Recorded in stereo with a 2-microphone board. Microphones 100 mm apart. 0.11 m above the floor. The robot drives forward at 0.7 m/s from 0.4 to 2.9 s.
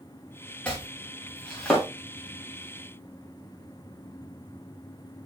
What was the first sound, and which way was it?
Chopping, 10° left (ahead or behind).